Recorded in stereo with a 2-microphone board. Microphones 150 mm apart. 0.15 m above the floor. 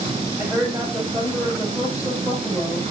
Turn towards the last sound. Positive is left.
turn(degrees=-10)  # may be behind; listen again after turning